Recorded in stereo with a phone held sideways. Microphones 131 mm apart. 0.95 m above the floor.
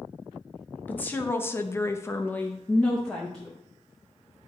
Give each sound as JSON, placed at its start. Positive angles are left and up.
{"t": 0.9, "sound": "a woman speaking", "side_deg": 15, "distance_m": 0.9}